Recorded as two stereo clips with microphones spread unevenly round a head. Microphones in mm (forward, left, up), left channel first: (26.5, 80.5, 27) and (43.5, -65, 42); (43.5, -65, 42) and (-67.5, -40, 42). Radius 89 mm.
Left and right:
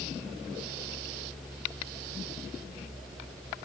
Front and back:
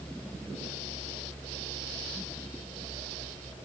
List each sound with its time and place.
Only background noise.